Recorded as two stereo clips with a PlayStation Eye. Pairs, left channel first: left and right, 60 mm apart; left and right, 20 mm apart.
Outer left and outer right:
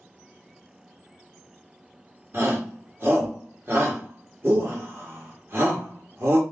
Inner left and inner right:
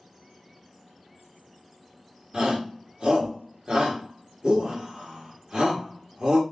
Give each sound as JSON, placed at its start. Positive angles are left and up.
{"t": 2.3, "sound": "a shout", "side_deg": -40, "distance_m": 1.8}